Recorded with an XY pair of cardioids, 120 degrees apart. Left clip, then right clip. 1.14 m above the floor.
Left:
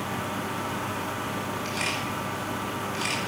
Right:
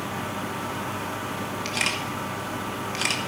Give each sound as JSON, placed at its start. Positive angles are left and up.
{"t": 1.6, "sound": "a camera shutter", "azimuth_deg": -45, "distance_m": 2.0}